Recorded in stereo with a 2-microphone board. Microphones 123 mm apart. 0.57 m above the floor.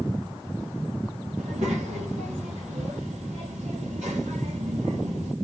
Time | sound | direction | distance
1.4 | a child speaking | 80° right | 1.7 m